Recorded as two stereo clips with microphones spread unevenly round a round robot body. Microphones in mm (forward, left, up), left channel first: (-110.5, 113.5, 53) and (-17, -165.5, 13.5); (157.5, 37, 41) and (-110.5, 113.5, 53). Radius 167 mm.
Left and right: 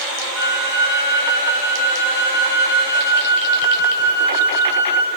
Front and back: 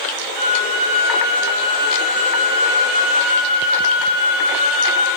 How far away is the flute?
About 4 m.